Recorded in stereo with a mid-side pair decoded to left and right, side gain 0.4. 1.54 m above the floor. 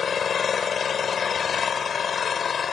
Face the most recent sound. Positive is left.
turn(degrees=50)